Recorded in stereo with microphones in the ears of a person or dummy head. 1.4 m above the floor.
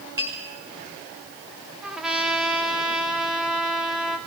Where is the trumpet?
5° right (ahead or behind), 1.2 m.